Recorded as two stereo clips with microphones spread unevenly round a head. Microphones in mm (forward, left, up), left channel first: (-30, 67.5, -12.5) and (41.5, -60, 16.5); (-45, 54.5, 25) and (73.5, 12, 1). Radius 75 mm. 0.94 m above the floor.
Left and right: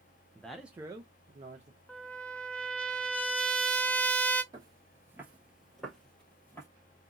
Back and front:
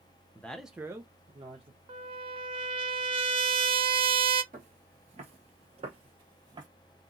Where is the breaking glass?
I don't hear breaking glass.